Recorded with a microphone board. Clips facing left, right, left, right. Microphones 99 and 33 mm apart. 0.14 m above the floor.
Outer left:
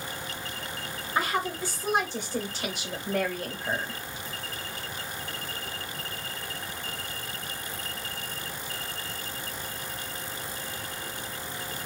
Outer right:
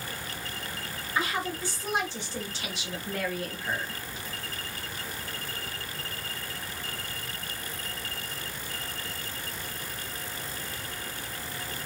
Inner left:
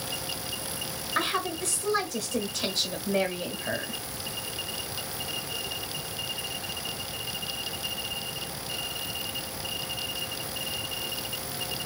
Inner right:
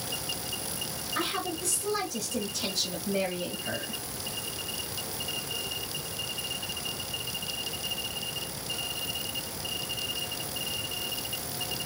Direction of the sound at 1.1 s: 25° left (ahead or behind).